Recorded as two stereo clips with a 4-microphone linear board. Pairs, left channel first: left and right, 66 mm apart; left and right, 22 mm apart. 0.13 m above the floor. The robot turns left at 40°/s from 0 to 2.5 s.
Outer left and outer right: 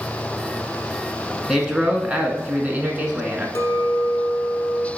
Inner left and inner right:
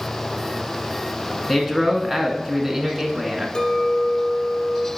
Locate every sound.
1.5 s a man speaking: 15° right, 1.2 m; by 3.5 s 60° right, 1.2 m
3.5 s a clink: 45° left (ahead or behind), 1.2 m